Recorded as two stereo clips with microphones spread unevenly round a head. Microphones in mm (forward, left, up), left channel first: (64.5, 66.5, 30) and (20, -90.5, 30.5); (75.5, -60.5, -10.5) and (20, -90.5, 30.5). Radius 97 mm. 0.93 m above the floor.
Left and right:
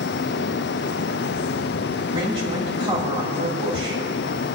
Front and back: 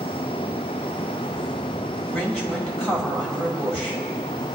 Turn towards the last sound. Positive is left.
turn(degrees=-45)